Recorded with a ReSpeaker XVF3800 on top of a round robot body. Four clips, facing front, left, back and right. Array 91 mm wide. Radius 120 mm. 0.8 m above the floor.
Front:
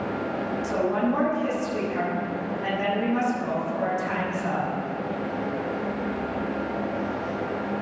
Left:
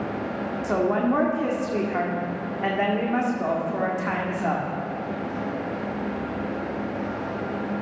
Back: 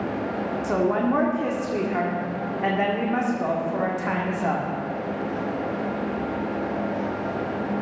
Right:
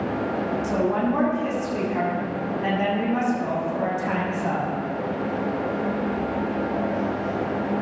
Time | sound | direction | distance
0.6 | a woman speaking | 135° left | 1.8 m